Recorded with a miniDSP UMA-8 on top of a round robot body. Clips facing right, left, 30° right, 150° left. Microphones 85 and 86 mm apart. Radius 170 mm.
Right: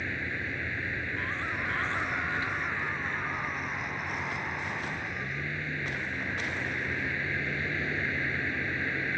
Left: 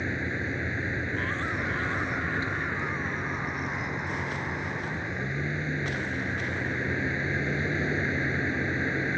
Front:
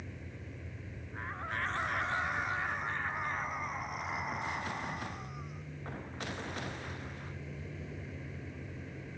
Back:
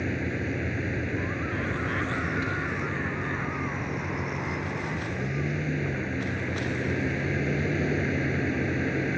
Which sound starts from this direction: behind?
A vehicle, at 0.0 s.